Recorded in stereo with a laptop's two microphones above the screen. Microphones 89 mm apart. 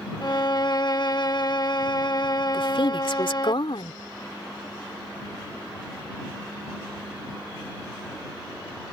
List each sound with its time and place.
0.2 s a violin: 55° left (ahead or behind)
2.5 s a woman speaking: 75° left (ahead or behind)